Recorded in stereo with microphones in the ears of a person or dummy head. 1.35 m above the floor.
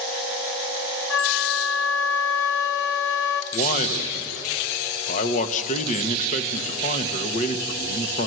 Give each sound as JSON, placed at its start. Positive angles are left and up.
{"t": 1.1, "sound": "a flute", "side_deg": 75, "distance_m": 0.8}
{"t": 3.5, "sound": "a man speaking", "side_deg": 45, "distance_m": 1.5}